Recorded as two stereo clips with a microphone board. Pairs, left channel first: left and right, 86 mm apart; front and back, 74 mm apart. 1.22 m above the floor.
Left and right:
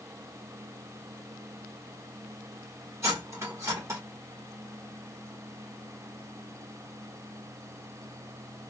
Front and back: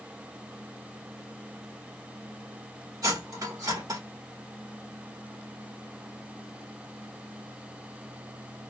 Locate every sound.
3.0 s cutlery clinking: 145° right, 2.0 m